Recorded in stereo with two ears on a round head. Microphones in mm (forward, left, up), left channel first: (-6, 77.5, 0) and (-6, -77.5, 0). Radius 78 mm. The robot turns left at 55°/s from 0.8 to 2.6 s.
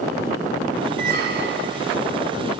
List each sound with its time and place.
1.0 s a squeak: 55° right, 2.5 m; by 1.9 s 105° right, 2.5 m